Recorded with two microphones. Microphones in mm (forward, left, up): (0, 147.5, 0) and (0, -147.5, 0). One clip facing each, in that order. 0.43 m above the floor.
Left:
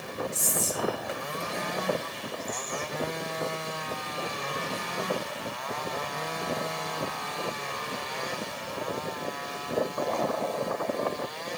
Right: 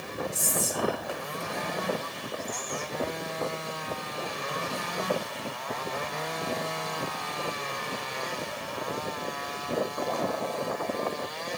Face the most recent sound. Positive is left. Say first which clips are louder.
# right 1 dB
turn(degrees=25)  # may be behind; listen again after turning